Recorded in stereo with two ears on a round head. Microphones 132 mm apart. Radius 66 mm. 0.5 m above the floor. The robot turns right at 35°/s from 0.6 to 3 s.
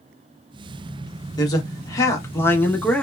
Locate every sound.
1.4 s a man speaking: 25° left (ahead or behind), 0.9 m; by 3.0 s 10° left (ahead or behind), 0.9 m